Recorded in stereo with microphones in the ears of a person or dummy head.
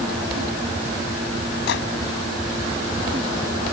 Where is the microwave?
70° left (ahead or behind).